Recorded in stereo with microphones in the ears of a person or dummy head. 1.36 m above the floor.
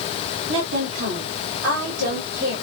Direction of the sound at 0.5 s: 70° right (ahead or behind).